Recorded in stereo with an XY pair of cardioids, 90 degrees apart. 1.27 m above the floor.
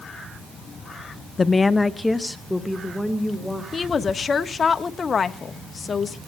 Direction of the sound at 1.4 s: 40° left.